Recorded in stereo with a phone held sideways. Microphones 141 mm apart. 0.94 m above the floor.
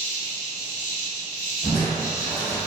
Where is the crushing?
Centre (ahead or behind), 1.1 m.